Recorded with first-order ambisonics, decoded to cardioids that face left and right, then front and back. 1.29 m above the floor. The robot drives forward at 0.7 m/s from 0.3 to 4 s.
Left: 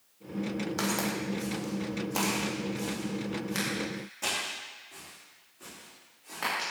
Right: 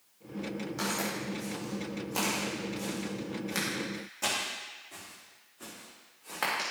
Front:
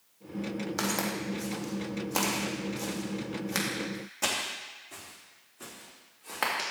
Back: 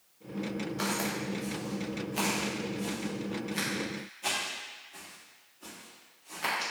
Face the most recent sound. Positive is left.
turn(degrees=-20)